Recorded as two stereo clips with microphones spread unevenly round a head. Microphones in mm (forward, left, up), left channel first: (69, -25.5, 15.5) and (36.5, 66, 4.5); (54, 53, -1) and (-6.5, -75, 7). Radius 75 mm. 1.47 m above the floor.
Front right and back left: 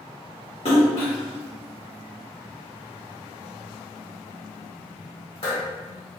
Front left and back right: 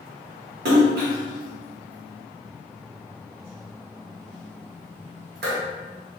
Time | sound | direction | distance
0.7 | a splash | 120° right | 1.4 m